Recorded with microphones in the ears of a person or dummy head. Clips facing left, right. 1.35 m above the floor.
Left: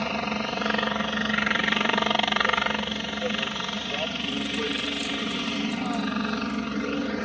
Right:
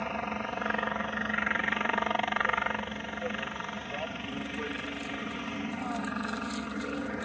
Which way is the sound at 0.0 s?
45° left (ahead or behind).